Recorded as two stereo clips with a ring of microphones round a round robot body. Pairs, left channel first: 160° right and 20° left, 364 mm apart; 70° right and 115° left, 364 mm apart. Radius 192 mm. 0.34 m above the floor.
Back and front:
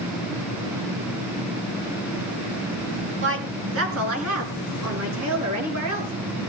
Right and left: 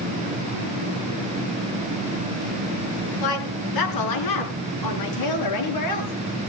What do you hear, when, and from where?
3.2 s a woman speaking: 35° right, 4 m; by 6.1 s 25° right, 6 m